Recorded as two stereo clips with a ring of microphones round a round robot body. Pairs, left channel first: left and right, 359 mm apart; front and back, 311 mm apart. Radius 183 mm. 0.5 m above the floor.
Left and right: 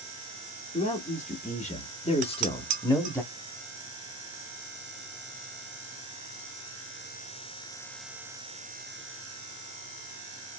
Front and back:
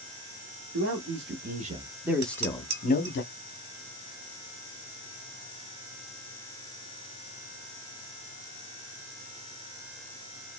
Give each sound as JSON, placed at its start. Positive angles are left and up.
{"t": 0.7, "sound": "a man speaking", "azimuth_deg": 155, "distance_m": 1.1}
{"t": 2.2, "sound": "dishes clattering", "azimuth_deg": -135, "distance_m": 1.9}